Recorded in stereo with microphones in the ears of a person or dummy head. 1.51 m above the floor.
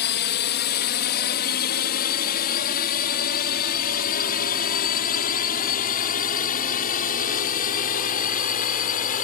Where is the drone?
45° left (ahead or behind); by 9.2 s 35° left (ahead or behind).